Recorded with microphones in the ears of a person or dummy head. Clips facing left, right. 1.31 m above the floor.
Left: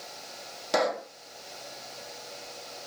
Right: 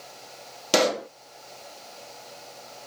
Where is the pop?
40° right (ahead or behind).